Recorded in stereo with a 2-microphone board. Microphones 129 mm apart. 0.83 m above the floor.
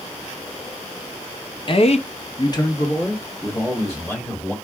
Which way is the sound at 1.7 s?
40° left (ahead or behind).